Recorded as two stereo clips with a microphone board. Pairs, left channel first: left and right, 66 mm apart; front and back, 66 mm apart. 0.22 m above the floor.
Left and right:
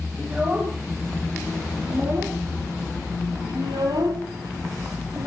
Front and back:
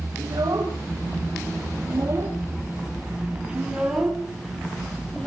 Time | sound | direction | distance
0.2 | a child speaking | 155° right | 6 m